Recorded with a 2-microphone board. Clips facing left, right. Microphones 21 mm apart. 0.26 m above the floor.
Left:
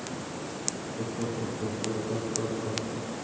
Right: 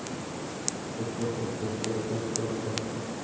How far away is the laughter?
About 2.5 m.